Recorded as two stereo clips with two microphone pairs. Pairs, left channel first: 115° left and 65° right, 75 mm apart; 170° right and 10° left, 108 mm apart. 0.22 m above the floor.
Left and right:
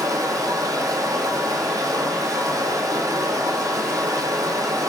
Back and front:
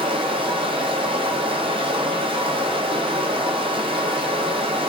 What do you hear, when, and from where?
0.0 s running water: 25° right, 0.9 m